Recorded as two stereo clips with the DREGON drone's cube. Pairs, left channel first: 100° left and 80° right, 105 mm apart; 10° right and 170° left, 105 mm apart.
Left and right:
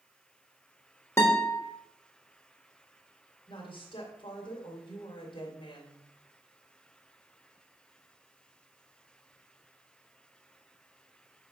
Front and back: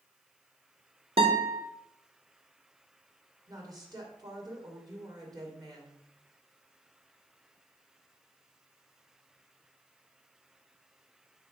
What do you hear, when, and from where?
1.2 s a guitar: 165° left, 1.4 m
3.5 s a woman speaking: 125° left, 1.8 m